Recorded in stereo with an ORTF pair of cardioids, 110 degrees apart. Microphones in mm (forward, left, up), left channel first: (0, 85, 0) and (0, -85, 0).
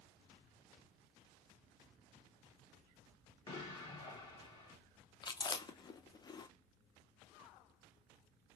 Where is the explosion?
25° left, 1.5 m.